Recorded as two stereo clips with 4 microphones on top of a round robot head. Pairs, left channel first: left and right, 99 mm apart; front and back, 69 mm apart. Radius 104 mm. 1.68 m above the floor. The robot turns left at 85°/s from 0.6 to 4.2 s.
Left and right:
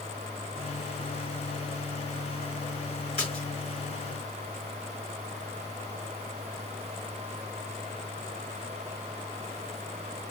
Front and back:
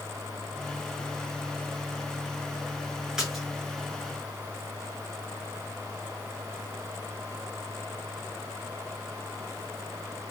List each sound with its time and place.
3.2 s a splash: 110° left, 1.5 m; by 3.5 s 85° left, 1.5 m